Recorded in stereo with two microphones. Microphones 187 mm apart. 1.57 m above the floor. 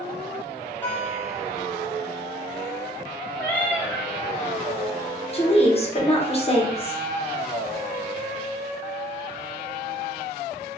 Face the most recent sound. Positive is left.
turn(degrees=35)  # may be behind; listen again after turning